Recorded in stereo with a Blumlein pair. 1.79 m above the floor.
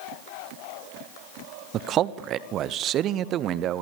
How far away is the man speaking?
About 1.2 m.